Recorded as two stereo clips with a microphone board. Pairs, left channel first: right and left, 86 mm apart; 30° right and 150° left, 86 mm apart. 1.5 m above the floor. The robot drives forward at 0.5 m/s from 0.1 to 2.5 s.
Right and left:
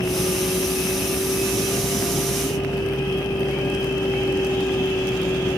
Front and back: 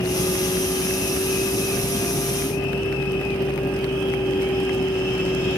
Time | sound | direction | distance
0.0 | a vehicle | 50° right | ?